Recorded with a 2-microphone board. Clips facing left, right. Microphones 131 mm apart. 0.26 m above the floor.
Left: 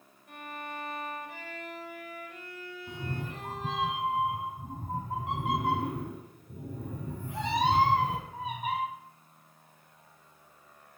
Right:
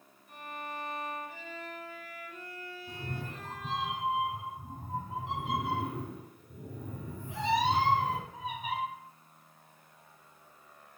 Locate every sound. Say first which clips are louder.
0.3 s a violin: left 1 dB; 65° left (ahead or behind), 0.5 m
2.9 s a cat meowing: left 4 dB; 50° left (ahead or behind), 0.9 m